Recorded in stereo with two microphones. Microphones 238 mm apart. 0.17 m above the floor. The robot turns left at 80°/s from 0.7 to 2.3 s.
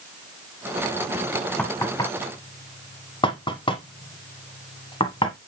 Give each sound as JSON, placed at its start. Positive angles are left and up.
{"t": 1.6, "sound": "knocking", "side_deg": 5, "distance_m": 1.2}